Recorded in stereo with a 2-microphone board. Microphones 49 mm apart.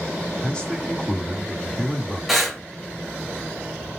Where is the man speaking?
15° left (ahead or behind), 1.2 m.